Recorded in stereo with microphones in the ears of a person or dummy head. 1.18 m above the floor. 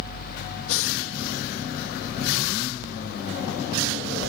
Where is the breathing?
70° left (ahead or behind).